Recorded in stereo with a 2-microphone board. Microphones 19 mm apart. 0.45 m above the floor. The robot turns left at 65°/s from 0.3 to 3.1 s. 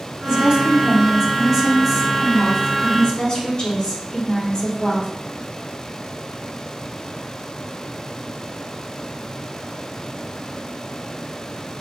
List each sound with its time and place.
0.2 s a woman speaking: 80° right, 1.1 m; by 5.1 s 95° left, 1.1 m